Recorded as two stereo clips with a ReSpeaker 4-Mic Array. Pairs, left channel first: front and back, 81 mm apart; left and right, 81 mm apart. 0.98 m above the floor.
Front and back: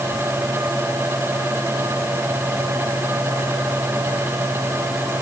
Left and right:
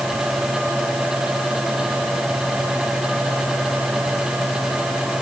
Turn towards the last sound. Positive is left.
No sound to turn to.